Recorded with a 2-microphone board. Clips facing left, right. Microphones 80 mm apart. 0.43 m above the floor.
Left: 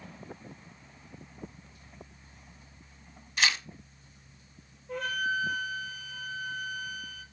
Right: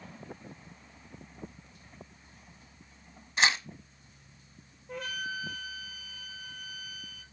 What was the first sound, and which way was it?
Tearing paper, 30° right (ahead or behind).